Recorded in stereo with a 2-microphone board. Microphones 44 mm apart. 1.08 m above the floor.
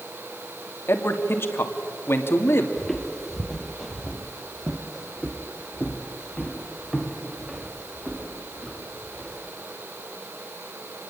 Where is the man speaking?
65° left (ahead or behind), 2 m.